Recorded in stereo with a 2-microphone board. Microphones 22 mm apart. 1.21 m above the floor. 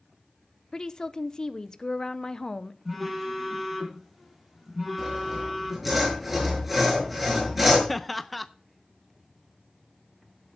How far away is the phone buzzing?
About 5 m.